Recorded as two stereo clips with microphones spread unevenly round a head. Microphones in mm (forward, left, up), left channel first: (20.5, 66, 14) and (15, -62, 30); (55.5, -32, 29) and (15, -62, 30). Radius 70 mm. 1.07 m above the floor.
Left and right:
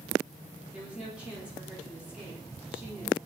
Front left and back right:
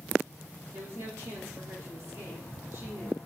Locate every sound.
0.7 s a woman speaking: 175° right, 3.5 m